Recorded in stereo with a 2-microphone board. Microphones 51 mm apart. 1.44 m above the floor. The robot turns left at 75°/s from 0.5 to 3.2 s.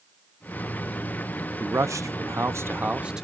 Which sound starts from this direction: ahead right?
A man speaking, at 1.6 s.